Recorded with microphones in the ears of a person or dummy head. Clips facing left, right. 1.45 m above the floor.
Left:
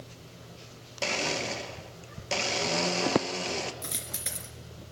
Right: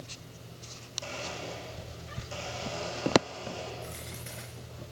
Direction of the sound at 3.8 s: 75° left (ahead or behind).